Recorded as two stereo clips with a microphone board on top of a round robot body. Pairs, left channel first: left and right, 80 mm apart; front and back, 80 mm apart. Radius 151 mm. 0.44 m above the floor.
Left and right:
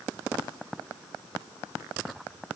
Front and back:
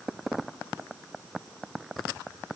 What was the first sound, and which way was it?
Only background noise.